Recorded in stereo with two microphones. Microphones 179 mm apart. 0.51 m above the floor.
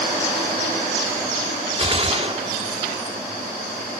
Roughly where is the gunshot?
Right.